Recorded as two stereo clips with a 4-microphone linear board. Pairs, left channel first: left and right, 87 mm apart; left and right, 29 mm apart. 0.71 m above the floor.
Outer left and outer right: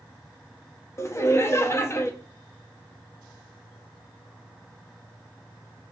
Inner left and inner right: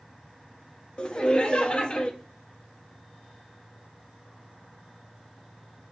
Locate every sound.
1.0 s laughter: 30° left (ahead or behind), 0.6 m